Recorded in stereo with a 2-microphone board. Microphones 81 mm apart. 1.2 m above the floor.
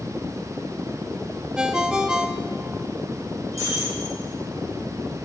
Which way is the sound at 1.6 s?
10° right (ahead or behind).